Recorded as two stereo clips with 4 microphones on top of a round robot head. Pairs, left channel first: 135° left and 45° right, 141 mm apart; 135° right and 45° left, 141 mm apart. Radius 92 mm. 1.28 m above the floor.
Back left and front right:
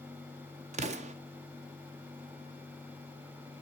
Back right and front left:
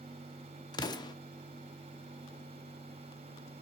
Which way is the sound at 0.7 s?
80° right.